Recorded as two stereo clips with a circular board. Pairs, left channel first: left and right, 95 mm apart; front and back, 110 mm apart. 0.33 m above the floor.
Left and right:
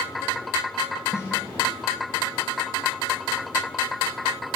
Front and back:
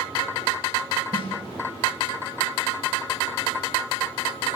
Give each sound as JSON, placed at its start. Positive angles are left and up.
{"t": 1.1, "sound": "a snare drum", "azimuth_deg": 150, "distance_m": 3.0}